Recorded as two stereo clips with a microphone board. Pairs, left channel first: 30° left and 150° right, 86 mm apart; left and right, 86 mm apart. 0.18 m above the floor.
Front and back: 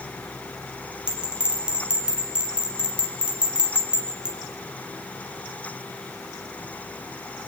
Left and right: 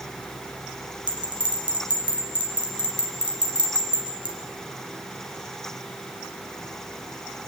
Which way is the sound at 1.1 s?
70° right.